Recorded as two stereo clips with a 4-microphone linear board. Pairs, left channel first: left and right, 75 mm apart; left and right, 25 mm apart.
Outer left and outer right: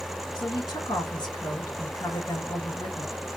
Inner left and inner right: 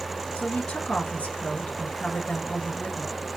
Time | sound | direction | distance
0.3 | a woman speaking | 75° left (ahead or behind) | 2.5 m